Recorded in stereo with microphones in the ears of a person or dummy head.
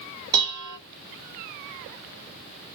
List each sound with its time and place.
0.3 s dishes clattering: 20° right (ahead or behind), 0.5 m